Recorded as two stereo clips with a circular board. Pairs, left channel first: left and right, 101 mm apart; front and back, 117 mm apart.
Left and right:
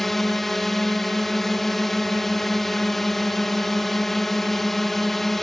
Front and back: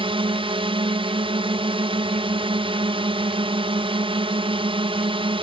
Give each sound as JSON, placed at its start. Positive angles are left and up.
{"t": 0.0, "sound": "a drone", "azimuth_deg": 180}